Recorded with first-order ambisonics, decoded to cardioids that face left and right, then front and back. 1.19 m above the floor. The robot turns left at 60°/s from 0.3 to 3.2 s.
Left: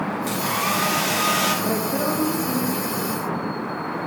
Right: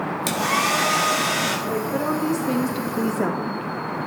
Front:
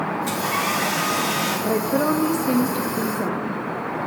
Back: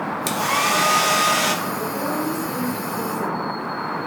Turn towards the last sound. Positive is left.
turn(degrees=-65)